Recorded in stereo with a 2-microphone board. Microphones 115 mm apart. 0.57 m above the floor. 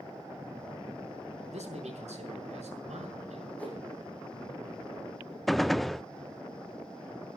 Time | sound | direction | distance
1.5 | a man speaking | 85° right | 6 m
3.6 | a whoosh | 15° left (ahead or behind) | 6.5 m
5.5 | a gunshot | centre (ahead or behind) | 0.5 m